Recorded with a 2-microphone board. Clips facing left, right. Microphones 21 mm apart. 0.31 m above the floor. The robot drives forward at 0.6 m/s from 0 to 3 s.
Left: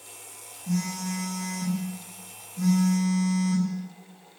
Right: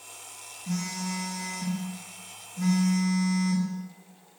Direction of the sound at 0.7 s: 30° right (ahead or behind).